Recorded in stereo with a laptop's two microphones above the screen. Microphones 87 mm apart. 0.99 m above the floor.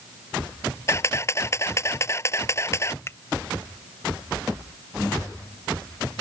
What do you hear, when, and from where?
0.9 s a camera shutter: 30° left (ahead or behind)
3.1 s a finger snap: 30° left (ahead or behind)